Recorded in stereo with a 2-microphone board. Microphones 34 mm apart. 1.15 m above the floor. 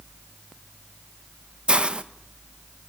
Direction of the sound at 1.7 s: 35° right (ahead or behind).